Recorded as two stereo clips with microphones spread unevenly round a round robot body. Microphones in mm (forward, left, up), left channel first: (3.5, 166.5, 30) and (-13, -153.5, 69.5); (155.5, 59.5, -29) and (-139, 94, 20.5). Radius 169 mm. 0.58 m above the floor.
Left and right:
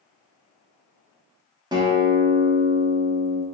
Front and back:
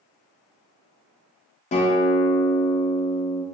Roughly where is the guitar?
Ahead.